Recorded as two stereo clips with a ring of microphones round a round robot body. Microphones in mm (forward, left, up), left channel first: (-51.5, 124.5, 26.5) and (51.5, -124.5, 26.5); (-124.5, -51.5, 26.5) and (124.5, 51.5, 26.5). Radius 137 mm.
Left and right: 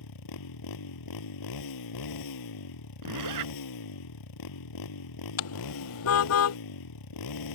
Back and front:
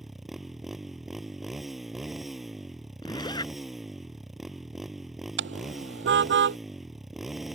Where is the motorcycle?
110° left.